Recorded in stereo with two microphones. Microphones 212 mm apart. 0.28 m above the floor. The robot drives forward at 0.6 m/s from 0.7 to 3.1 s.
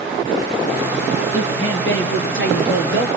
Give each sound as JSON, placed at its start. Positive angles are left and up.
{"t": 1.3, "sound": "a woman speaking", "side_deg": 70, "distance_m": 4.0}